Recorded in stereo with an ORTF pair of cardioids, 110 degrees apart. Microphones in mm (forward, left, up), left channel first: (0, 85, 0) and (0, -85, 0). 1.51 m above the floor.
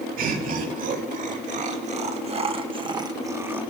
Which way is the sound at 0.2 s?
55° right.